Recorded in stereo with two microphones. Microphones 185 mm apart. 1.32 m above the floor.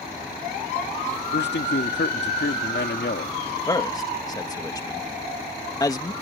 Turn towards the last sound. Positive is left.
turn(degrees=20)  # may be behind; listen again after turning